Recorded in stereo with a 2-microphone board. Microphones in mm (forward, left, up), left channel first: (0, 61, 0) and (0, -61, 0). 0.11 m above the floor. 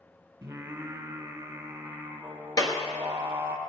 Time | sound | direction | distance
0.4 | singing | 20° right (ahead or behind) | 1.5 m
2.6 | a clap | 35° left (ahead or behind) | 1.4 m